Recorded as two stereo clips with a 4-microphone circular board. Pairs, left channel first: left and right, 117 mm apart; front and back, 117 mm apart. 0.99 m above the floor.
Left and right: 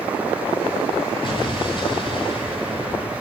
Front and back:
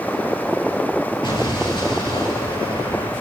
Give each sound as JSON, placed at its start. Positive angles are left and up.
{"t": 1.2, "sound": "an explosion", "azimuth_deg": 45, "distance_m": 7.0}